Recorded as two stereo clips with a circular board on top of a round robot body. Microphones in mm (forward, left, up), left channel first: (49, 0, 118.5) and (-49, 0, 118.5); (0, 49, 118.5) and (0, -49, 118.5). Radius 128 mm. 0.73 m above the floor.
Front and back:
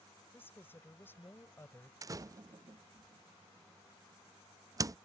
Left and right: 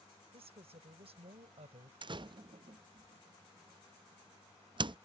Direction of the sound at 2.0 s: 125° right.